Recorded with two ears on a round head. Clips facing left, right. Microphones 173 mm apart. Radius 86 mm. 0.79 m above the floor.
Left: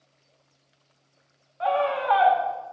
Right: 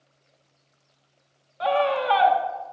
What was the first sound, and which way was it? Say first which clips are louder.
A scream: right 2 dB; 45° right (ahead or behind).